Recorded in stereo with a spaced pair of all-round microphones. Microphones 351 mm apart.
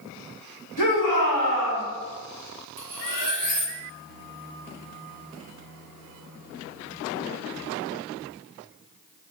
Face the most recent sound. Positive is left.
turn(degrees=-55)  # may be behind; listen again after turning